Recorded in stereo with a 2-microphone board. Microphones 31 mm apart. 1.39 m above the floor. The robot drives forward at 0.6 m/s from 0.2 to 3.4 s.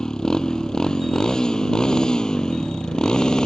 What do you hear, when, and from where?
0.0 s a motorcycle: 20° left (ahead or behind); by 3.5 s 25° left (ahead or behind)